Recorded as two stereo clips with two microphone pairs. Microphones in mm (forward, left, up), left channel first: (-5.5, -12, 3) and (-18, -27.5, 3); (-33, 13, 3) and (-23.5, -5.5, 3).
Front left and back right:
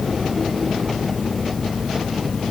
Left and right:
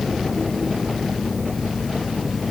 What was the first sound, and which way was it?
Only background noise.